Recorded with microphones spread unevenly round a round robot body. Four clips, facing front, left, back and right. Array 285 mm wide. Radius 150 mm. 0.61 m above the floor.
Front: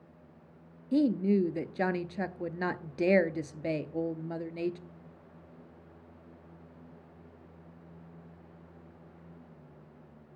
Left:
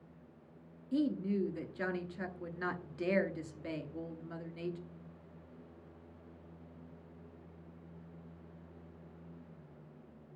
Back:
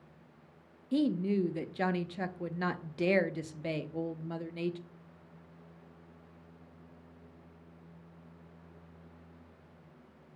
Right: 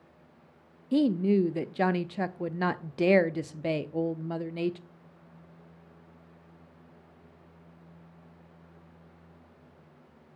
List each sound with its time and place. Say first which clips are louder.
0.9 s a woman speaking: right 9 dB, front 3 dB; 60° right, 0.7 m